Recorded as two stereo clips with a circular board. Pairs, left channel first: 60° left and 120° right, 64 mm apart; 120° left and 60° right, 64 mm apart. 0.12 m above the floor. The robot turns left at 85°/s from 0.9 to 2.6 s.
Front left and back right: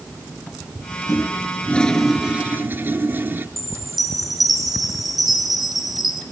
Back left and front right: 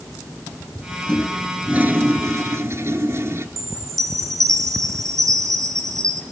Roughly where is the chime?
Ahead right.